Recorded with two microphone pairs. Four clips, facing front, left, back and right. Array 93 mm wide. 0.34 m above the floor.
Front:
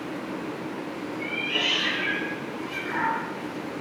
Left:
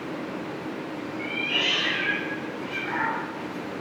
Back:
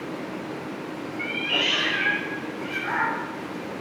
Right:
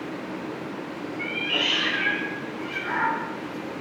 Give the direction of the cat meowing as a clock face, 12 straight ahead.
5 o'clock.